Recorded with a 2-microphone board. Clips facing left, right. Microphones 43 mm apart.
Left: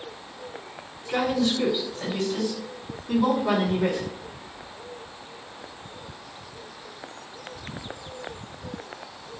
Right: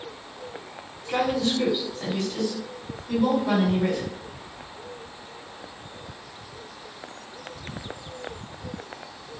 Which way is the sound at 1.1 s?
10° right (ahead or behind).